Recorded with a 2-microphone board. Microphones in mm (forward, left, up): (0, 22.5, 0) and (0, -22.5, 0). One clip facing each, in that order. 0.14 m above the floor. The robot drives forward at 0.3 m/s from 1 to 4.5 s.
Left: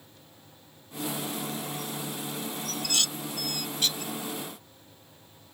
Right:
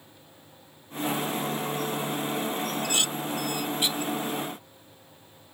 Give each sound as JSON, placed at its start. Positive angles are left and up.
{"t": 2.7, "sound": "dishes clattering", "side_deg": -25}